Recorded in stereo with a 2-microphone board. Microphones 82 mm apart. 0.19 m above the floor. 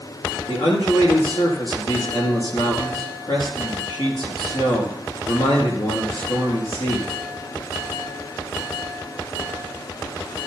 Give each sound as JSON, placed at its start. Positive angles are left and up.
{"t": 0.5, "sound": "a man speaking", "side_deg": 70, "distance_m": 4.5}